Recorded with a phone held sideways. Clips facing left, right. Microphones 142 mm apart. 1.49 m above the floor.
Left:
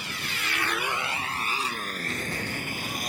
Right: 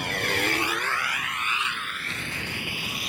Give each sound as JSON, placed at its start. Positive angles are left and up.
{"t": 0.0, "sound": "a motorcycle", "side_deg": -60}